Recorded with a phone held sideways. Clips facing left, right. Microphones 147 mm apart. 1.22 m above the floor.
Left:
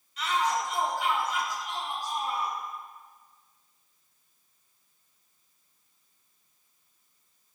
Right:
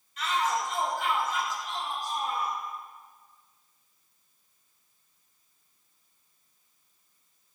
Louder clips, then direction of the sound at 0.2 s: Left 1 dB; 50° right (ahead or behind).